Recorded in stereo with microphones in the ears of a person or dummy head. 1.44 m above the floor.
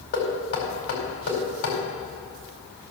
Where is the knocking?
70° left (ahead or behind), 4.5 m.